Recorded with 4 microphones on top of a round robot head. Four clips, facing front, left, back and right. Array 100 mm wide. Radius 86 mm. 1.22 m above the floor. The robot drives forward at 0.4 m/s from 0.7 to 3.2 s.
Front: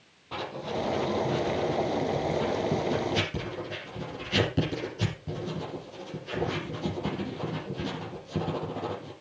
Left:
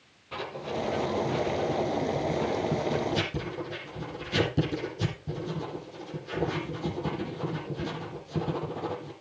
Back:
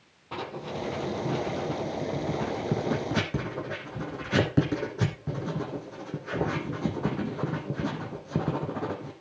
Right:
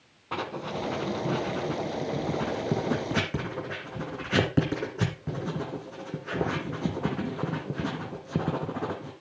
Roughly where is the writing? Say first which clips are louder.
Right 1 dB, front 2 dB; right.